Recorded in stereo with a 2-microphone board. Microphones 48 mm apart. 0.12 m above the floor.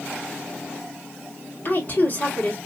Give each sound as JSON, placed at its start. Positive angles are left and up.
{"t": 1.6, "sound": "a woman speaking", "side_deg": 45, "distance_m": 2.5}